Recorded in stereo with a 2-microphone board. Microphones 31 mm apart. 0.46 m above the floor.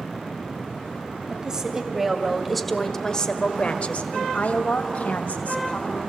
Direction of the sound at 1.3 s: 25° right (ahead or behind).